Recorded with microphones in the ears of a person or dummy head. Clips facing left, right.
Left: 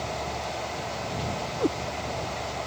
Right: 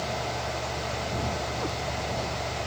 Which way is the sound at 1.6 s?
45° left (ahead or behind).